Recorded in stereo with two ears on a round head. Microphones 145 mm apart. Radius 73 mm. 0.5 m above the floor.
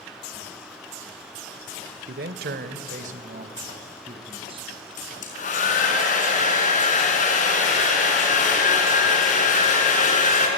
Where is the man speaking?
60° right (ahead or behind), 1.5 m; by 4.8 s 30° right (ahead or behind), 4.5 m.